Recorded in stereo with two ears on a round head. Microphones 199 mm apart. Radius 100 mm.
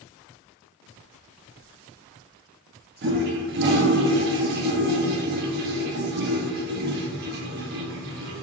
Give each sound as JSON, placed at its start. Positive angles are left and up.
{"t": 3.0, "sound": "a toilet flushing", "side_deg": -45, "distance_m": 0.6}